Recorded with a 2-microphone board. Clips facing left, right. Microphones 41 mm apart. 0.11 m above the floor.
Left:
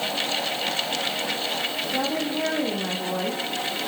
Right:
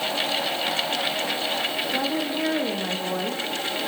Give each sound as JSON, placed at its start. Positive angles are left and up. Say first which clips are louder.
{"t": 1.9, "sound": "a woman speaking", "louder": "left 2 dB", "side_deg": -5, "distance_m": 7.0}